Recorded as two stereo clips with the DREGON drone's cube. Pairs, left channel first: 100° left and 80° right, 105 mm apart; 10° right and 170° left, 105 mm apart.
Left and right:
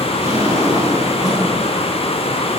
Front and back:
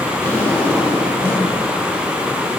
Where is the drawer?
80° right, 9.5 m.